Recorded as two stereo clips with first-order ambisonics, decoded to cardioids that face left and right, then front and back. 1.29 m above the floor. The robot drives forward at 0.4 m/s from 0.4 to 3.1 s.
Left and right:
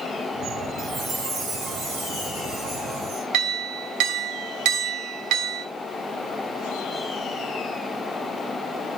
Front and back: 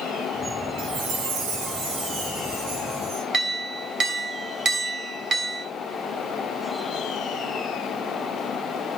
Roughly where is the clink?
Behind right.